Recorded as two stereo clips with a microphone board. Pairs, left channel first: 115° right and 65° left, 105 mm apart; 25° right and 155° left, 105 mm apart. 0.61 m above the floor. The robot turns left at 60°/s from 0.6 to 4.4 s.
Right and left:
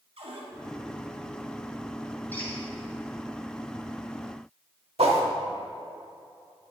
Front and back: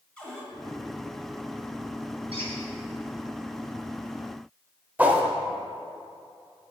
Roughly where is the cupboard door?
Ahead left.